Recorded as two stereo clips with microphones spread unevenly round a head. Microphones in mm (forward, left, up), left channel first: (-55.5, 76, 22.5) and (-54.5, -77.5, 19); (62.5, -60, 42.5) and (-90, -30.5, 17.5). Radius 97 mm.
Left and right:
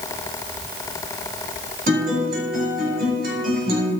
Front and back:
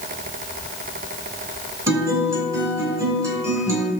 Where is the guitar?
115° right, 2.5 m.